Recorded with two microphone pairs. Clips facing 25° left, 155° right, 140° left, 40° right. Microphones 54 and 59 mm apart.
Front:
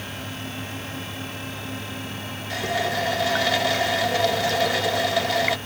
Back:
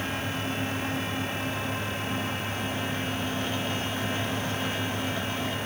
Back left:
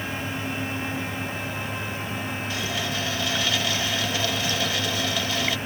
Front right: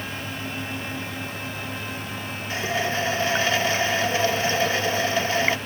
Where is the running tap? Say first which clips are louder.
Front 6 dB, front right 7 dB; 15° left.